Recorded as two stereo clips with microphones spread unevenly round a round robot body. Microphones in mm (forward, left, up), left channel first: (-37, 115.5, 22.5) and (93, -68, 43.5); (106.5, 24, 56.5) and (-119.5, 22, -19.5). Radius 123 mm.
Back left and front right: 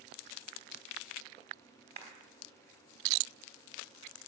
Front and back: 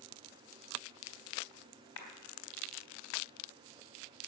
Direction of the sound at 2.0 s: 5° left.